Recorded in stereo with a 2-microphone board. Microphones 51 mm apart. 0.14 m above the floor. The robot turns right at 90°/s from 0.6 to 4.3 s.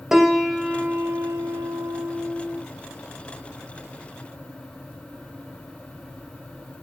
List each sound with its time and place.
0.1 s a piano: 175° right, 1.2 m; by 2.6 s 10° left, 1.2 m